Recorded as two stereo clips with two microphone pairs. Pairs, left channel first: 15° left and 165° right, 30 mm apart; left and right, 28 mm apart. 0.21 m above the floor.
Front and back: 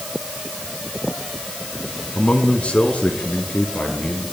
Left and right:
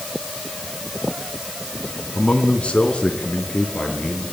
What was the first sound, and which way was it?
A man speaking, 55° left.